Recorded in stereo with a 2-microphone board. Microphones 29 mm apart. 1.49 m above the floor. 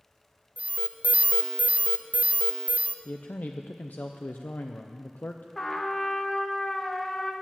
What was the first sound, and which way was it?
An alarm, 55° right (ahead or behind).